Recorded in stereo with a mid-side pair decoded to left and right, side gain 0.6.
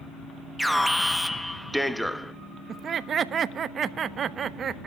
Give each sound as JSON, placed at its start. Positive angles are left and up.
{"t": 0.6, "sound": "an alarm", "azimuth_deg": 0, "distance_m": 0.9}
{"t": 2.7, "sound": "laughter", "azimuth_deg": -40, "distance_m": 1.1}